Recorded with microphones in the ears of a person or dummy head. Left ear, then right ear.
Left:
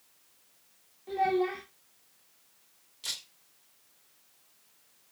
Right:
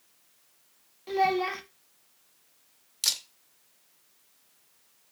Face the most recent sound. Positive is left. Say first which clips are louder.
# right 8 dB
turn(degrees=-65)  # may be behind; listen again after turning